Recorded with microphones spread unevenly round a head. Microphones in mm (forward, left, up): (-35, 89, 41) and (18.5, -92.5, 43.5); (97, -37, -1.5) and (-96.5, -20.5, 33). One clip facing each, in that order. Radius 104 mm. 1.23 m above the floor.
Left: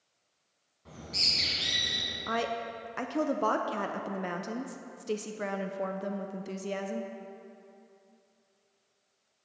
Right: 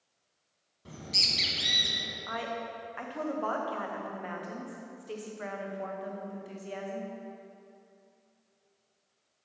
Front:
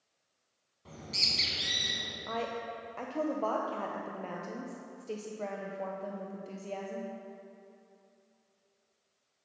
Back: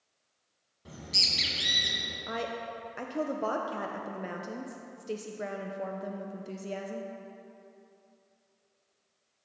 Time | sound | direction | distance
0.8 | a bird | 120° right | 1.8 m
2.3 | a woman speaking | 95° left | 0.8 m